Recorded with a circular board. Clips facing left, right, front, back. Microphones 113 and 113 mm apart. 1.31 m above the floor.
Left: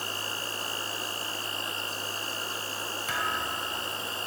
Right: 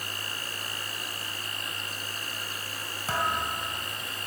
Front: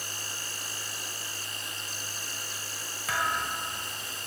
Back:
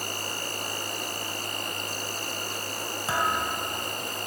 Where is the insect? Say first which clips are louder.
Left 3 dB, back 8 dB; 150° left, 0.8 m.